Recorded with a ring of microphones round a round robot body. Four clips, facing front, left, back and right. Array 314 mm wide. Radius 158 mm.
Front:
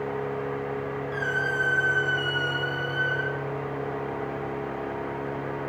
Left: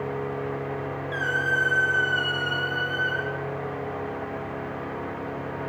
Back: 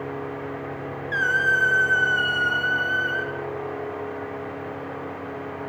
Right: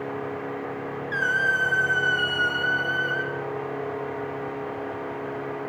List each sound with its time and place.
1.1 s a squeak: 170° right, 1.3 m